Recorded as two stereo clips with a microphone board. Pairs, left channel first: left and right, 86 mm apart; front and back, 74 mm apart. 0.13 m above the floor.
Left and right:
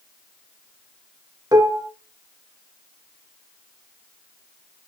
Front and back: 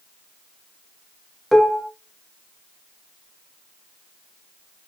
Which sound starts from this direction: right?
Dishes clattering, at 1.5 s.